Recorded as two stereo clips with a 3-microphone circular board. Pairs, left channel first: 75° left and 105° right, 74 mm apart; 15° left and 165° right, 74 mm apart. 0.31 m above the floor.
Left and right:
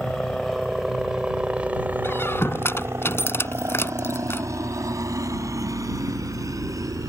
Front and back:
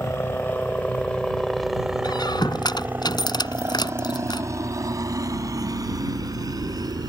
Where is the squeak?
20° left.